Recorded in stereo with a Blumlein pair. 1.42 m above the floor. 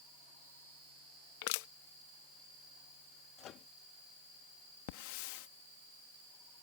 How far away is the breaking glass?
No breaking glass in this recording.